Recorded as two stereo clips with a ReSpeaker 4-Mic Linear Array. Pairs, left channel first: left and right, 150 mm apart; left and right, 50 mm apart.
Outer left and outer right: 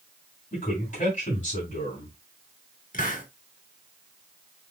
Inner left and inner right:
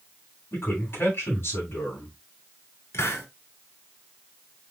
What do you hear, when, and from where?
0.5 s a man speaking: 55° left (ahead or behind), 8 m
2.9 s a hiss: 65° left (ahead or behind), 1.9 m